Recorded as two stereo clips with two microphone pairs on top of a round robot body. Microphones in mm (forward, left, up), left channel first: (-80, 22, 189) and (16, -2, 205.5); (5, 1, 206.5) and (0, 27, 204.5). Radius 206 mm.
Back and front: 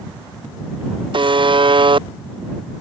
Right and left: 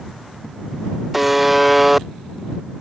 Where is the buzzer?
20° left.